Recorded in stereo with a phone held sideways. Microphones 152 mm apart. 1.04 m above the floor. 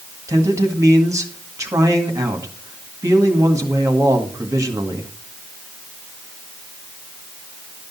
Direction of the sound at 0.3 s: 20° right (ahead or behind).